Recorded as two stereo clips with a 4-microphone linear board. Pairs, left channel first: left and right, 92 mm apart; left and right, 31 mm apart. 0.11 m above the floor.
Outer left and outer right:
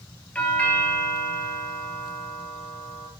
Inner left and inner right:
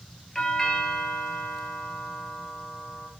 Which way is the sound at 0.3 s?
15° left (ahead or behind).